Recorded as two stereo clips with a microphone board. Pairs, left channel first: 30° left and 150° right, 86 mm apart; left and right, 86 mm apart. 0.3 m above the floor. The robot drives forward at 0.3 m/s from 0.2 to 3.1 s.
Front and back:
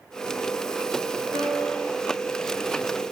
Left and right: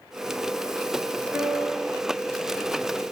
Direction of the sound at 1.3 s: 165° right.